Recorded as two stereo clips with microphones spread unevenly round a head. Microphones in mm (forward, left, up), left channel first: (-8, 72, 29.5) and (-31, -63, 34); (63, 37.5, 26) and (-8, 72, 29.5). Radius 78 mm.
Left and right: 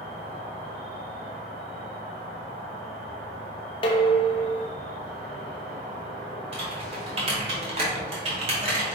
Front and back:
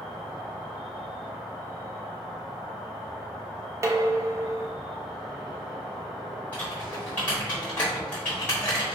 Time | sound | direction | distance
0.0 | an insect | 115° right | 1.7 m
3.8 | dishes clattering | 120° left | 0.6 m
6.5 | typing on a keyboard | 100° right | 1.2 m